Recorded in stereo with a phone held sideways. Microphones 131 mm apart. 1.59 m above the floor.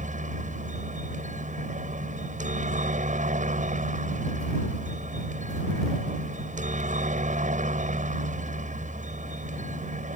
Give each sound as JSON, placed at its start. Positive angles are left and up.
{"t": 0.0, "sound": "a helicopter", "side_deg": -70}